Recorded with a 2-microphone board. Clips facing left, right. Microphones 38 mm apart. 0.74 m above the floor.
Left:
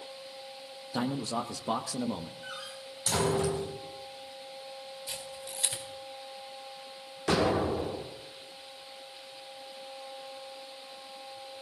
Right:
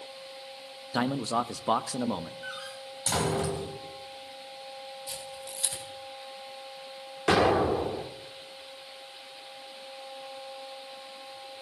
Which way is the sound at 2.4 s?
25° right (ahead or behind).